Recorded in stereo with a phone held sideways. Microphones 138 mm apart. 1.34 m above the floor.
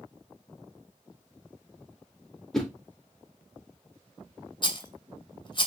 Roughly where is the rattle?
Left.